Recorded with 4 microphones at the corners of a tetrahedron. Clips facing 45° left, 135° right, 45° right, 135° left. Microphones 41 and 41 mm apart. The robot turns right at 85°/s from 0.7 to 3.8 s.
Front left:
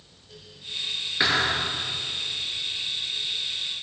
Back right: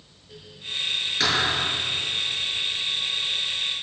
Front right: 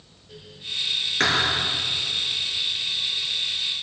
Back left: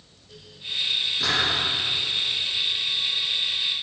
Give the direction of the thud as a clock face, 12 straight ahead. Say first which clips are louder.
Front left 1 dB, front right 4 dB; 1 o'clock.